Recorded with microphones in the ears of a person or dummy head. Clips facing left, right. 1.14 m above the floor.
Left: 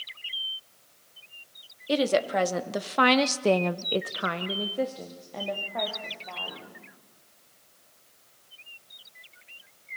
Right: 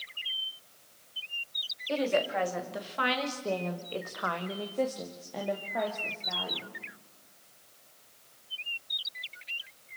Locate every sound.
1.9 s a woman speaking: 45° left (ahead or behind), 2 m; by 6.8 s 15° right (ahead or behind), 3.5 m